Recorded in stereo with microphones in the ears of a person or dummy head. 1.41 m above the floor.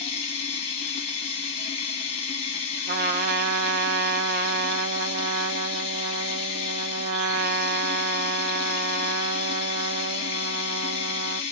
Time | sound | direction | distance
0.0 | running water | 35° left (ahead or behind) | 1.2 m
2.9 | a trumpet | 50° right (ahead or behind) | 0.6 m